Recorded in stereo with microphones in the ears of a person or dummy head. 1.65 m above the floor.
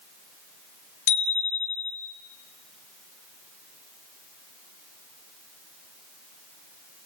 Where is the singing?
I don't hear singing.